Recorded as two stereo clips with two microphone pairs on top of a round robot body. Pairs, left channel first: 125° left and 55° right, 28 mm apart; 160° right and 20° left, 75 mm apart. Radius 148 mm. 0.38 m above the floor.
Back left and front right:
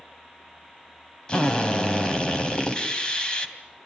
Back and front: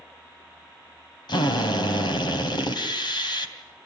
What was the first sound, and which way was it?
A drill, 175° right.